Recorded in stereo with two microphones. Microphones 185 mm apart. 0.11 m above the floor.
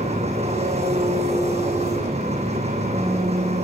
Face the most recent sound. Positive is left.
turn(degrees=-35)  # may be behind; listen again after turning